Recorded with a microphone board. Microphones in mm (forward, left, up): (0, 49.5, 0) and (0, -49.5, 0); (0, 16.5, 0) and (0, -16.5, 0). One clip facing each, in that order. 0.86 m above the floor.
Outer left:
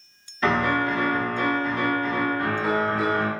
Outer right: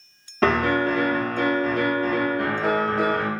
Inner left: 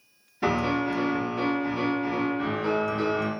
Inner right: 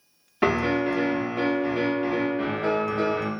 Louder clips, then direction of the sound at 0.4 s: Outer right 2 dB, inner right 3 dB; 85° right.